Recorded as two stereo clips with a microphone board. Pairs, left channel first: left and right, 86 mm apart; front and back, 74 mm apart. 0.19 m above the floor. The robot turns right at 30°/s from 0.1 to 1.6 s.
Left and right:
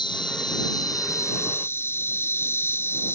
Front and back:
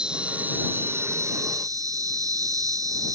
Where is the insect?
105° left; by 3.1 s 150° left.